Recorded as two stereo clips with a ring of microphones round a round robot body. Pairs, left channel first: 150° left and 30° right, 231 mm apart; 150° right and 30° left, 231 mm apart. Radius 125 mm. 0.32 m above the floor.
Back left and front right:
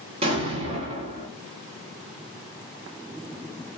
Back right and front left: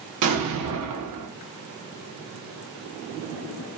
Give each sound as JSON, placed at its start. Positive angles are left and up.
{"t": 0.2, "sound": "an explosion", "azimuth_deg": 40, "distance_m": 0.7}